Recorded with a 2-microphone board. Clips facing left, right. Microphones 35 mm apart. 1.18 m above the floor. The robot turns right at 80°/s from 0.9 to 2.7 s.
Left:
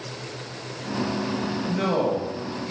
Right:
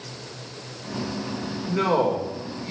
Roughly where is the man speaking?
Right.